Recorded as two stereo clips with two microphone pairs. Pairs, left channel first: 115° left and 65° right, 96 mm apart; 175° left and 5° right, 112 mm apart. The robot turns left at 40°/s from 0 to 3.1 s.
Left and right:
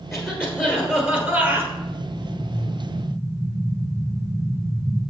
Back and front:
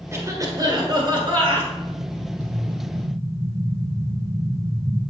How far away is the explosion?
About 1.6 m.